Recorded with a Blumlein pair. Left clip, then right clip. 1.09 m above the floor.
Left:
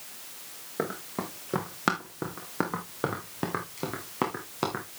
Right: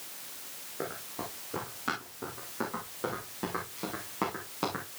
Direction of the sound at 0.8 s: 45° left.